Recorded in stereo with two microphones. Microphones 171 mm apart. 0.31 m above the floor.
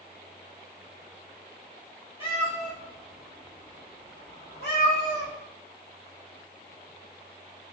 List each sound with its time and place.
2.2 s a cat meowing: 35° left (ahead or behind), 1.4 m; by 5.3 s 90° left, 2.5 m